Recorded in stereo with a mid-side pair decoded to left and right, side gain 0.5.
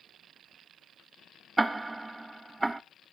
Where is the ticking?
15° right, 0.7 m.